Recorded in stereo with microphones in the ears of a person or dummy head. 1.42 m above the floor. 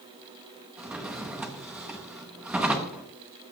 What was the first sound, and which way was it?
A drawer, 5° right (ahead or behind).